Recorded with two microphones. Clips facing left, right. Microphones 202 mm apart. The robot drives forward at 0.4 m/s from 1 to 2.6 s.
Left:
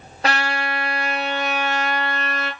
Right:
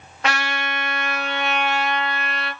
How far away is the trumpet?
About 1.0 m.